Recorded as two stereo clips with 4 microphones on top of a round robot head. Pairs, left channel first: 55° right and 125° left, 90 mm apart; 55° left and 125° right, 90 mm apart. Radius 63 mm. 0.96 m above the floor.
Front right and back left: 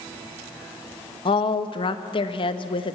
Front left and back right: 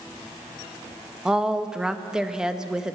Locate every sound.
1.2 s a woman speaking: 45° right, 1.4 m